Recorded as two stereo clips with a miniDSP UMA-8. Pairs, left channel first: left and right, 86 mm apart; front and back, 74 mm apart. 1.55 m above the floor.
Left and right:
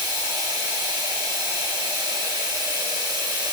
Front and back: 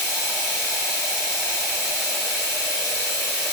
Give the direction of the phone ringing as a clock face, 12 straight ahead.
I don't hear a phone ringing.